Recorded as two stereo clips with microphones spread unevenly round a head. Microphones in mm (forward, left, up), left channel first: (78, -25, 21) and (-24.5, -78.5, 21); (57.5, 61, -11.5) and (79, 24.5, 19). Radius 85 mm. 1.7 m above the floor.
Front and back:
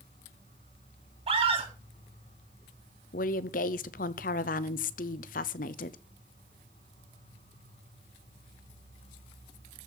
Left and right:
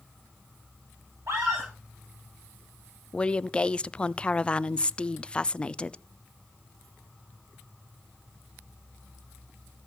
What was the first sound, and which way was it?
An insect, 20° left.